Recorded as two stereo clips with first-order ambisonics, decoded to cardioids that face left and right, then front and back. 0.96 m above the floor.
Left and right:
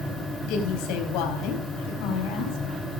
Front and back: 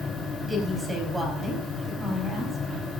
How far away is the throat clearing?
I don't hear throat clearing.